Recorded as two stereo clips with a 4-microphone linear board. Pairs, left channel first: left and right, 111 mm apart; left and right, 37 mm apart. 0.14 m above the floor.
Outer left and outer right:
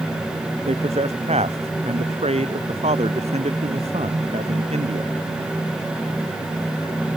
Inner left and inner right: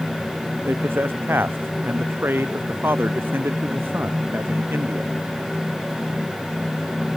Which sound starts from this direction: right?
A man speaking, at 0.7 s.